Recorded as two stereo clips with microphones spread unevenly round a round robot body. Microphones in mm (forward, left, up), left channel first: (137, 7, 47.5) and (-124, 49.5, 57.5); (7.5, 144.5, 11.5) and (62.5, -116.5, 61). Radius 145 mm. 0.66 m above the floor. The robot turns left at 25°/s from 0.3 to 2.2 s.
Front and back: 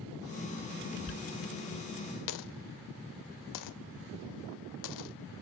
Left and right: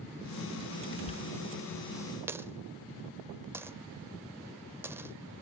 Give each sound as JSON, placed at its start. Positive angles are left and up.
{"t": 1.1, "sound": "a dropped coin", "azimuth_deg": 30, "distance_m": 1.1}